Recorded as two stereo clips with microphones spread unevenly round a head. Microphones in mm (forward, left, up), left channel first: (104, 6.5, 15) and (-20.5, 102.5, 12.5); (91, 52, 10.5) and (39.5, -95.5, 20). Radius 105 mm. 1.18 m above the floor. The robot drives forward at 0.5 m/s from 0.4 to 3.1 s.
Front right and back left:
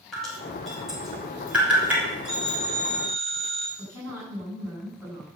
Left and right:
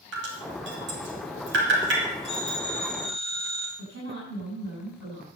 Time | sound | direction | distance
0.1 | dripping | 125° right | 3 m
2.3 | a phone ringing | 165° right | 5.5 m
3.8 | a woman speaking | 115° right | 8.5 m